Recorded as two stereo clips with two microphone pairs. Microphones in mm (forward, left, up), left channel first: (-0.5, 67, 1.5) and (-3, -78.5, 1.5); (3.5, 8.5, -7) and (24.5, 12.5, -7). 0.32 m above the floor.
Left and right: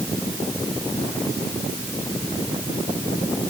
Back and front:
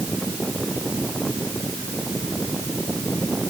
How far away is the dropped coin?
I don't hear a dropped coin.